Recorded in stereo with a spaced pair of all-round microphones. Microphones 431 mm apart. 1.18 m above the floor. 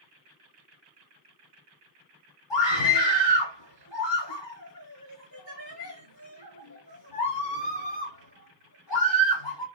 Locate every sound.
2.5 s a scream: 80° left, 4 m